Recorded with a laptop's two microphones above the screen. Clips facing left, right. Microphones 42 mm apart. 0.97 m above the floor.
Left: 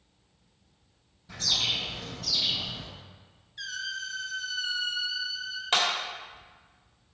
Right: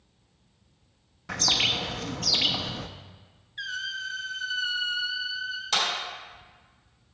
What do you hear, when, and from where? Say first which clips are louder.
1.3 s a bird: right 4 dB; 80° right, 0.5 m
3.6 s a squeak: right 3 dB; 25° right (ahead or behind), 0.7 m
5.7 s a clap: left 1 dB; 40° left (ahead or behind), 1.6 m